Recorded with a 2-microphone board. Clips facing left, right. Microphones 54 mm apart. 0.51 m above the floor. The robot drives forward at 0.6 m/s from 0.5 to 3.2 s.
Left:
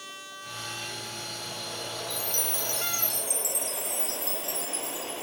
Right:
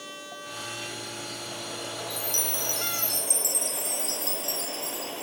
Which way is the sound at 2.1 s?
55° right (ahead or behind).